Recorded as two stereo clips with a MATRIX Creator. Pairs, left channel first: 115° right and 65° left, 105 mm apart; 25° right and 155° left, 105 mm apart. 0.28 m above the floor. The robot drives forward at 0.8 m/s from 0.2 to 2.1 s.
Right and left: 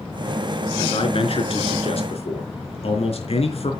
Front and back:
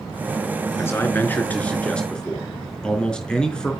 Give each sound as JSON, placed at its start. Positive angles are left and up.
{"t": 0.8, "sound": "a man speaking", "azimuth_deg": -90, "distance_m": 4.0}